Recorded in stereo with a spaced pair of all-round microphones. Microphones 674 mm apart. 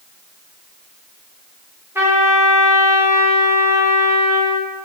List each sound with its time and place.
1.9 s a trumpet: 5° right (ahead or behind), 0.8 m